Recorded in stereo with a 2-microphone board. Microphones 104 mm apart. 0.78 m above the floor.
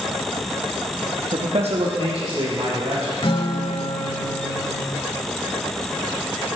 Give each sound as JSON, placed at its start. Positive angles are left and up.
{"t": 1.3, "sound": "a man speaking", "side_deg": -55, "distance_m": 0.8}
{"t": 3.2, "sound": "a guitar", "side_deg": 55, "distance_m": 1.0}